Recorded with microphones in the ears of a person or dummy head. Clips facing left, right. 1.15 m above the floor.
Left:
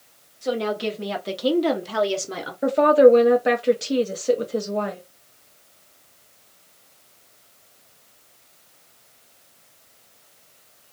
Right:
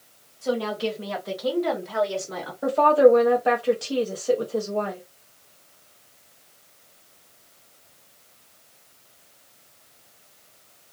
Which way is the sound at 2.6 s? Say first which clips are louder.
Left 3 dB; 25° left (ahead or behind).